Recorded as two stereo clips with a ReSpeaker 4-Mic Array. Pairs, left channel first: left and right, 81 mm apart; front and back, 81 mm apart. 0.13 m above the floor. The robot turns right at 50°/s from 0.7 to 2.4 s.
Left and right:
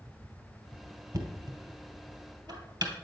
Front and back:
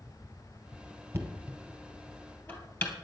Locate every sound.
1.1 s knocking: 125° right, 2.5 m; by 2.9 s 60° right, 2.5 m